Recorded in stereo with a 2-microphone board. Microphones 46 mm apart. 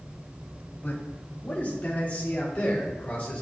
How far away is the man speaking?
About 1.8 m.